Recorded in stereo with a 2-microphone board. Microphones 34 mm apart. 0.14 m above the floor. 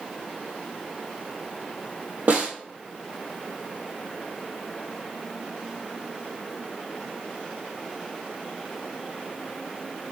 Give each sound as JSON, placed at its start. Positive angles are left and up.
{"t": 2.3, "sound": "a snare drum", "side_deg": -65, "distance_m": 1.5}